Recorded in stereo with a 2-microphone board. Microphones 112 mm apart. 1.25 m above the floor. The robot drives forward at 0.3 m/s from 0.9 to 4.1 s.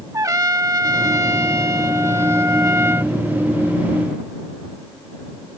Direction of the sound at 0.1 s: 35° right (ahead or behind).